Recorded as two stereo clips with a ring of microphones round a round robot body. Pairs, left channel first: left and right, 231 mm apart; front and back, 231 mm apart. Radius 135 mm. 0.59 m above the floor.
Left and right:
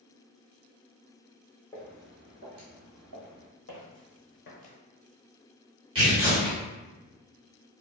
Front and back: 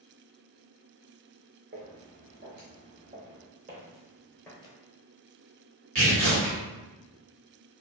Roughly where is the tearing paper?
Behind.